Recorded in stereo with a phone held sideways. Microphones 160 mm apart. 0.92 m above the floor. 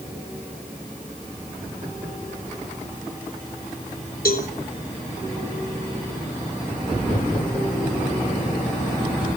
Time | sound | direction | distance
4.2 | a cowbell | 75° left (ahead or behind) | 3 m